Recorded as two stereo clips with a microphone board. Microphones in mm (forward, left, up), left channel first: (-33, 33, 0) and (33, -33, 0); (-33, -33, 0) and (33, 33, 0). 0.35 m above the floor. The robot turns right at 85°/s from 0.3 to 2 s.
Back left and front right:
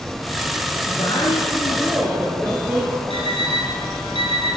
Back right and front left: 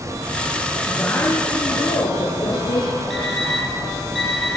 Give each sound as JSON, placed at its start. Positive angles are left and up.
{"t": 0.9, "sound": "a woman speaking", "azimuth_deg": 140, "distance_m": 6.5}
{"t": 3.1, "sound": "an alarm clock", "azimuth_deg": -50, "distance_m": 7.5}